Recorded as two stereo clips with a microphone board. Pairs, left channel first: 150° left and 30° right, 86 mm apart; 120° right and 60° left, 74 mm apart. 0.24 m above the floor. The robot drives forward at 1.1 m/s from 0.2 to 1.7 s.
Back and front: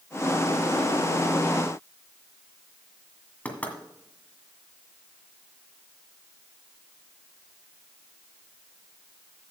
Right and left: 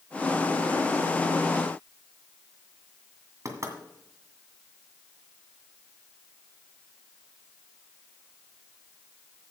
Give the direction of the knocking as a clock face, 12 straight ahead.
9 o'clock.